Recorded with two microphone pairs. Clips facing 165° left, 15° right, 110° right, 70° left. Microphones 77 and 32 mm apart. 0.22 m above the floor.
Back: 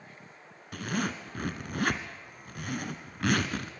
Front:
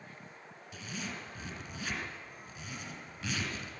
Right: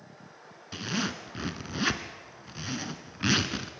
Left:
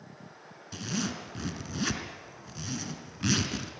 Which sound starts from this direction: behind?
A zipper, at 0.7 s.